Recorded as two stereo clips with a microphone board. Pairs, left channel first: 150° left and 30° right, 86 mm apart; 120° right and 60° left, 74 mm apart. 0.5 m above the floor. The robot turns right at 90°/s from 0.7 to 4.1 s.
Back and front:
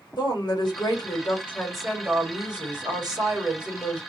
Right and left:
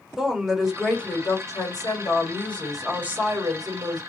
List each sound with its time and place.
0.2 s a woman speaking: 145° left, 1.2 m; by 4.0 s 80° left, 1.2 m